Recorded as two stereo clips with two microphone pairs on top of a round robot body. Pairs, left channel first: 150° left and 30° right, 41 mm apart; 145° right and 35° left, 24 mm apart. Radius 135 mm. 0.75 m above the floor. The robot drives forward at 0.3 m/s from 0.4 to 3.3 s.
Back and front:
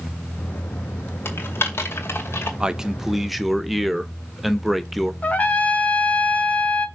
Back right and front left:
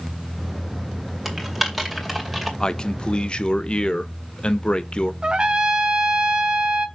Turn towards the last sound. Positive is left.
turn(degrees=95)